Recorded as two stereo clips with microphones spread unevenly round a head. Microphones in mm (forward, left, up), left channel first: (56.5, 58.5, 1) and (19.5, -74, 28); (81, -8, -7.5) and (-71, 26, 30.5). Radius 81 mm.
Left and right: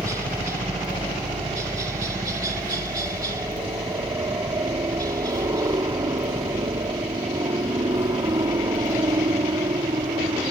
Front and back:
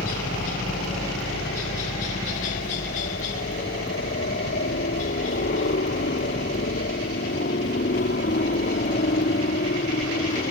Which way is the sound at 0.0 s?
35° right.